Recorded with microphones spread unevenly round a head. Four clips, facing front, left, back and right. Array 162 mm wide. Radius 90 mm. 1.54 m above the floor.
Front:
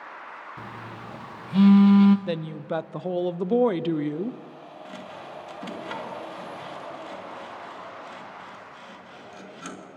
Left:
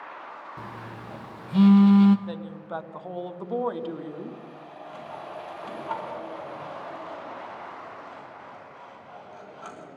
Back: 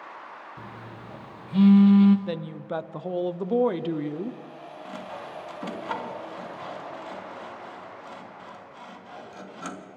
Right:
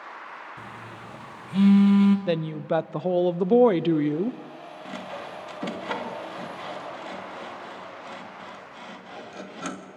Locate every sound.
0.6 s a phone buzzing: 65° left, 0.7 m
2.3 s a woman speaking: 65° right, 0.6 m
4.8 s sawing: 95° right, 1.9 m